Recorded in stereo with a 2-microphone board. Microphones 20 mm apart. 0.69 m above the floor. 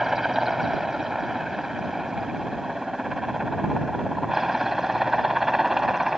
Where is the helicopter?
30° right (ahead or behind).